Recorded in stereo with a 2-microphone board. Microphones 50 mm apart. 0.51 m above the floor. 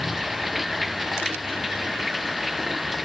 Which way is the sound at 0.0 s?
5° right (ahead or behind).